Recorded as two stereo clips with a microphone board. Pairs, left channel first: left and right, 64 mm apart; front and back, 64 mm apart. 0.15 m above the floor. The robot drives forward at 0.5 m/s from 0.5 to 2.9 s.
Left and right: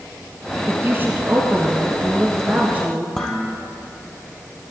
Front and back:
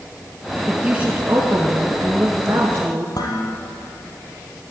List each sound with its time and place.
0.7 s a woman speaking: 115° right, 2 m; by 3.0 s 145° right, 2.5 m
3.1 s dishes clattering: 5° left, 3 m